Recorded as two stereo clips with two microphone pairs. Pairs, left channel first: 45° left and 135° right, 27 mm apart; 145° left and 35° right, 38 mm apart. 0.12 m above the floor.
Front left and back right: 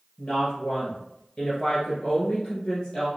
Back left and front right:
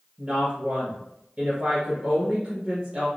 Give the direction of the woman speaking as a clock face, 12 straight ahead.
12 o'clock.